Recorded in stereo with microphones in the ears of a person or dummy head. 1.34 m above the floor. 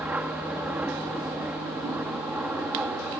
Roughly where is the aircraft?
Centre.